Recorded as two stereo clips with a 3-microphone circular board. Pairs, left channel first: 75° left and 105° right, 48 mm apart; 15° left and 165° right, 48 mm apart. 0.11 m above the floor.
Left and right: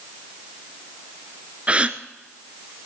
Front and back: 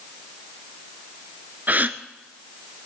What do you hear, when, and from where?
1.7 s a gasp: 150° right, 0.6 m